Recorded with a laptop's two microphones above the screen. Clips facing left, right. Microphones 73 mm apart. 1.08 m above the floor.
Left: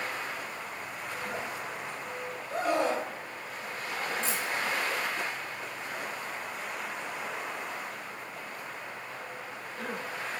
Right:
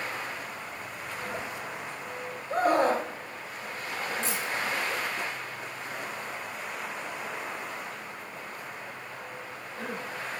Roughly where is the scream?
Right.